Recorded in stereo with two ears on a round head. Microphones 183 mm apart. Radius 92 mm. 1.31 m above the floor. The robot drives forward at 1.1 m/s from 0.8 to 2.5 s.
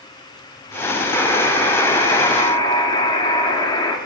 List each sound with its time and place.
1.1 s a buzzer: 15° left (ahead or behind), 5 m; by 4.0 s 20° left (ahead or behind), 3.5 m